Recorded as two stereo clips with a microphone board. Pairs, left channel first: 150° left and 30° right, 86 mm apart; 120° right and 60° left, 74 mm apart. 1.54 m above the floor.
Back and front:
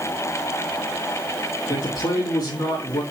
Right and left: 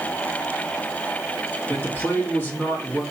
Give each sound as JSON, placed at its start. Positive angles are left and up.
{"t": 1.7, "sound": "a man speaking", "azimuth_deg": 175, "distance_m": 3.0}